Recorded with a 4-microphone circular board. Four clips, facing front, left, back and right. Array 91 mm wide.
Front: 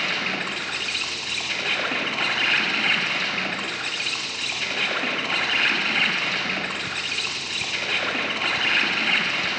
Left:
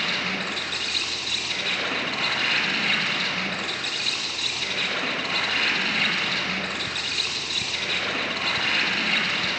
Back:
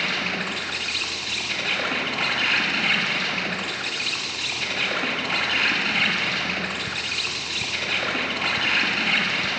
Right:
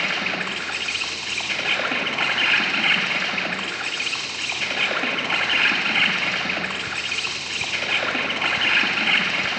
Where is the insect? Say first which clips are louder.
Right 2 dB, even; 80° right, 1.0 m.